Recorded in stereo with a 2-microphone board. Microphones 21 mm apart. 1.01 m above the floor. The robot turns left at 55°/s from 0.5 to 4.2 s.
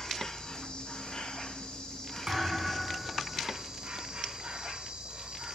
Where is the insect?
140° left, 1.4 m; by 5.5 s 65° right, 1.4 m.